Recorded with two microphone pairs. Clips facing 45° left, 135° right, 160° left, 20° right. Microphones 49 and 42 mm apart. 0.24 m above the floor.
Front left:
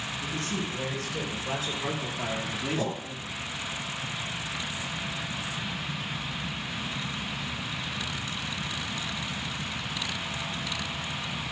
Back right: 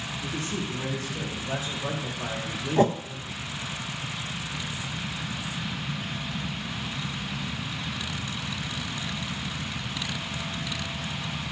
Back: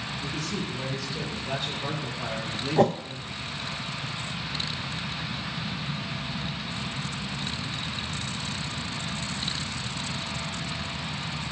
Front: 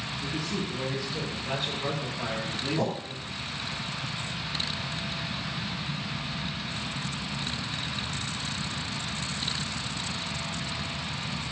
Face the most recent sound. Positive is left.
turn(degrees=180)